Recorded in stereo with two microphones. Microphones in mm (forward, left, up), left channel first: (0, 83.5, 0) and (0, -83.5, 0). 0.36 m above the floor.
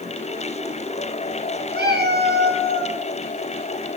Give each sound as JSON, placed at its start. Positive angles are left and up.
{"t": 1.7, "sound": "a cat meowing", "side_deg": -80, "distance_m": 2.5}